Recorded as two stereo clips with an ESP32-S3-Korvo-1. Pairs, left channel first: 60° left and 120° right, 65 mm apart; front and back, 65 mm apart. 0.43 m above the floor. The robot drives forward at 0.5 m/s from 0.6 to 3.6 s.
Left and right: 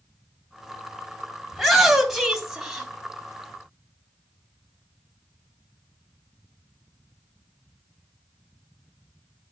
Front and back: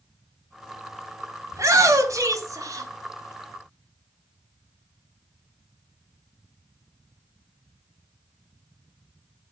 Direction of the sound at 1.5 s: 150° left.